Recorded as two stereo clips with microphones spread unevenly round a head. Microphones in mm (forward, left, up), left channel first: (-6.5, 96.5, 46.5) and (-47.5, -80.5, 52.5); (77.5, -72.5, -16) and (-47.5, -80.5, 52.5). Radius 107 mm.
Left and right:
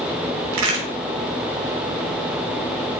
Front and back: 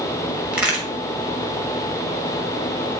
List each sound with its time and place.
0.5 s a crack: 90° right, 6 m